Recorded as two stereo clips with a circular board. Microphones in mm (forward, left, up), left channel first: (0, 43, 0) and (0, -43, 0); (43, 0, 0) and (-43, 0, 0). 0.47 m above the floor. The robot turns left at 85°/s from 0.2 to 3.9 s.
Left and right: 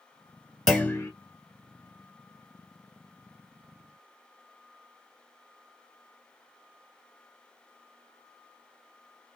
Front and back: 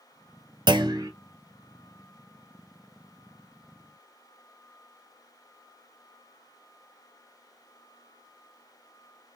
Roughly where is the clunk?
Behind.